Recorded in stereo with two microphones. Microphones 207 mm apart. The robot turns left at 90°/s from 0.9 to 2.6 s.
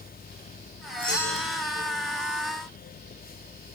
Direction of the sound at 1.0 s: 10° left.